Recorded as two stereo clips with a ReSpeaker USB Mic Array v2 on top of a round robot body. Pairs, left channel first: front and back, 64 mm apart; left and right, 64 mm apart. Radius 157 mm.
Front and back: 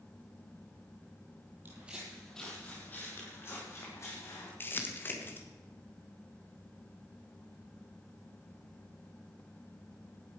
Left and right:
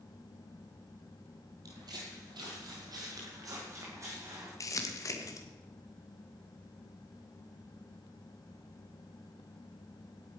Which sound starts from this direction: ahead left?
Crumpling, at 4.6 s.